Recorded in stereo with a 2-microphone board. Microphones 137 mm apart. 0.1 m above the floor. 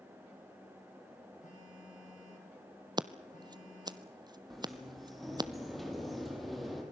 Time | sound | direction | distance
1.4 | a phone buzzing | 80° left | 7.5 m
3.0 | scissors | 35° right (ahead or behind) | 0.7 m
4.5 | a sliding door | centre (ahead or behind) | 4 m